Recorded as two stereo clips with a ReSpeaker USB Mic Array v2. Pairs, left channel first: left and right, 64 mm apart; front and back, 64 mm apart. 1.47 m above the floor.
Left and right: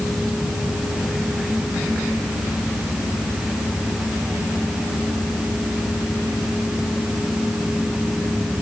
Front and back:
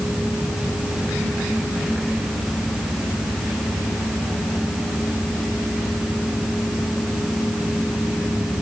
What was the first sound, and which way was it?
Only background noise.